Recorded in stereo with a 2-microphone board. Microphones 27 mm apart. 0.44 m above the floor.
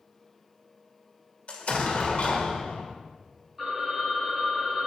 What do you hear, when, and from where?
1.5 s an explosion: 50° left (ahead or behind), 1.0 m
3.6 s a phone ringing: 5° right (ahead or behind), 3 m